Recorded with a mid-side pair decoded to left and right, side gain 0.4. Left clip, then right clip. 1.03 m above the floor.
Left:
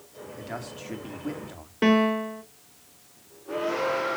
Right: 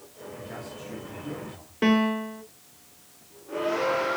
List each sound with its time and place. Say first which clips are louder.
0.4 s a man speaking: left 3 dB; 70° left, 2 m
1.8 s a piano: left 2 dB; 20° left, 1.2 m